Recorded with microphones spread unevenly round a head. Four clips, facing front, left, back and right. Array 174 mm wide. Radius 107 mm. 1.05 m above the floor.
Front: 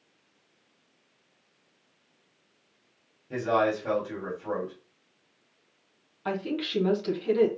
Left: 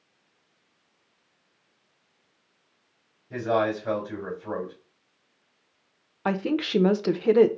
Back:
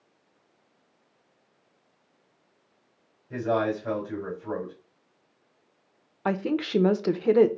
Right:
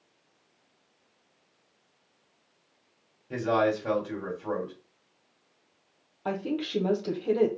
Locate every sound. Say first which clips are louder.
3.3 s a man speaking: left 1 dB, front 1 dB; 110° right, 2.5 m
6.2 s a woman speaking: left 5 dB, back 4 dB; 105° left, 0.9 m